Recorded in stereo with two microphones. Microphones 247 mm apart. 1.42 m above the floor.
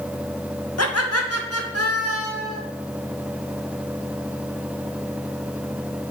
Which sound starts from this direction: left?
Laughter, at 0.8 s.